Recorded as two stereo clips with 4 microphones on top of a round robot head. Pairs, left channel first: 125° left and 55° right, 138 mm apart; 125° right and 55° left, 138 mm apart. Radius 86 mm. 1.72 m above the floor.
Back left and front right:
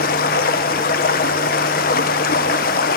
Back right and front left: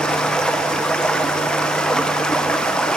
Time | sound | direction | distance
0.0 | running water | 150° left | 1.1 m